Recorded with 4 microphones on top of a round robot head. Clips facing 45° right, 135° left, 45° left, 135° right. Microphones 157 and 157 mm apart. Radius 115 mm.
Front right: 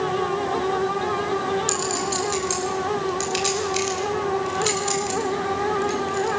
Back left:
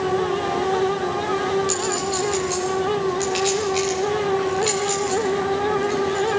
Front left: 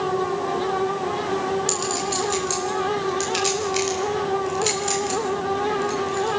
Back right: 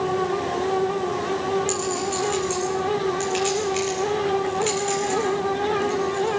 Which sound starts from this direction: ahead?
A clink, at 1.7 s.